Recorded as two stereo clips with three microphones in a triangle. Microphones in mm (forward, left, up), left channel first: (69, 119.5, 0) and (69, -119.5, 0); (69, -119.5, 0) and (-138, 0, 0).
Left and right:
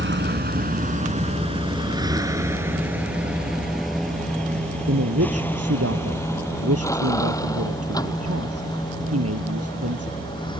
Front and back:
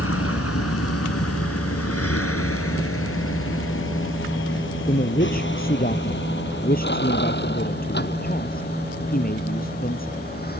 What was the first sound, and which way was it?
A vehicle, 50° right.